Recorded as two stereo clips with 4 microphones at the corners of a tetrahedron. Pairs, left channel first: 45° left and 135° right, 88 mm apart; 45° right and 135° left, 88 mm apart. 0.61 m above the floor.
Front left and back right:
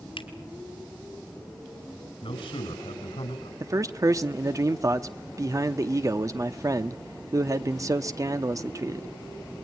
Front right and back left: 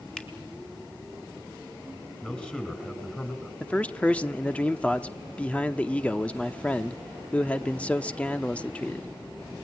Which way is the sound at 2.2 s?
35° left.